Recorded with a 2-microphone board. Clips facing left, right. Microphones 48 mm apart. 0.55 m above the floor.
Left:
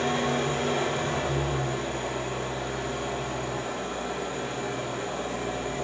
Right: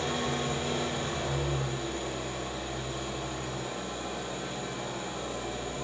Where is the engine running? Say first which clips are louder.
Left 5 dB; 80° left, 6.5 m.